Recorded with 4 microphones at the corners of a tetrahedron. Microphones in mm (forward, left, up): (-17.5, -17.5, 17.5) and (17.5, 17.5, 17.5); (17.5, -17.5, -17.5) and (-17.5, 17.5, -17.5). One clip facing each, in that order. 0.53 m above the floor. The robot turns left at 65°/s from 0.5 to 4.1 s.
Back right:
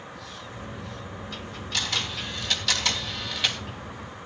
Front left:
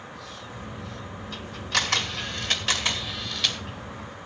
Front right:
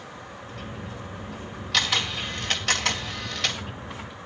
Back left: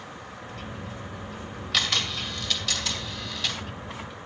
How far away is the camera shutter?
About 2 m.